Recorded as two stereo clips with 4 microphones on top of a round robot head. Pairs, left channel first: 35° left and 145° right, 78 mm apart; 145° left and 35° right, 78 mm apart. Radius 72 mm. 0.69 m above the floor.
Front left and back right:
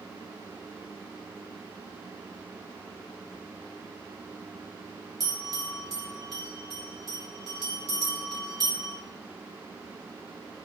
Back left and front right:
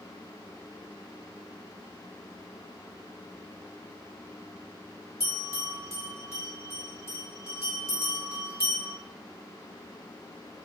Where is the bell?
170° right, 1.5 m.